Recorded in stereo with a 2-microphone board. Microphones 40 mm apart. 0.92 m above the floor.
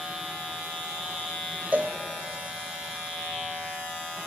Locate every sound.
1.7 s a cowbell: 45° right (ahead or behind), 0.6 m